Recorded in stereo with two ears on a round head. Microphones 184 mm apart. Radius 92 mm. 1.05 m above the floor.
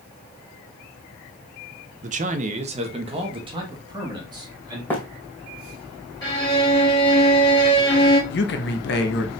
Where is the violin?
20° left (ahead or behind), 2.5 m.